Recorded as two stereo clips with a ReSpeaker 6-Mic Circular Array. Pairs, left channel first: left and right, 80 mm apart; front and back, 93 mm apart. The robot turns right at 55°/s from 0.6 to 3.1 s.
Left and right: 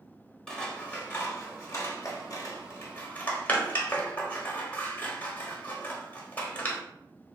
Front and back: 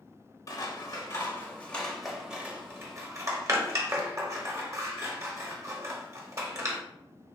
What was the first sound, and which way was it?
Scissors, 10° left.